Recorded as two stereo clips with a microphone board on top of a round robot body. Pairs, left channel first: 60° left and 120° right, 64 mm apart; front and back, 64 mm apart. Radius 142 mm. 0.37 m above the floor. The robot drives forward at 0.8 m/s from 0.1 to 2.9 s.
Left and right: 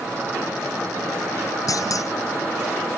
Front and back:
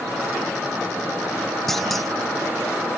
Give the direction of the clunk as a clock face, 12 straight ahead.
9 o'clock.